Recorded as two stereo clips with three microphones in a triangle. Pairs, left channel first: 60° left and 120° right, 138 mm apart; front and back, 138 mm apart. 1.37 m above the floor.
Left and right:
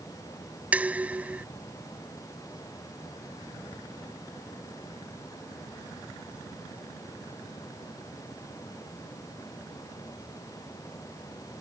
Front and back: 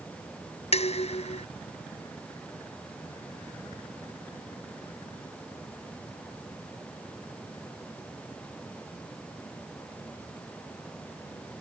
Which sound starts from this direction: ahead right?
Dishes clattering, at 0.7 s.